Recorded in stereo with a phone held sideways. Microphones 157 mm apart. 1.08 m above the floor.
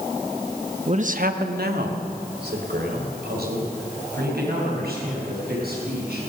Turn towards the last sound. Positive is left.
turn(degrees=-80)